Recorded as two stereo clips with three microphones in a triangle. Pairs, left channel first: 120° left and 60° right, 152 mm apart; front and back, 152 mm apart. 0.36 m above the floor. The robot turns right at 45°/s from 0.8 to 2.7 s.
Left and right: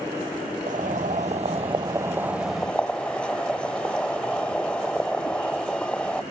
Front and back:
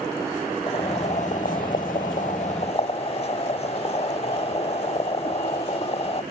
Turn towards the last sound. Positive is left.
turn(degrees=40)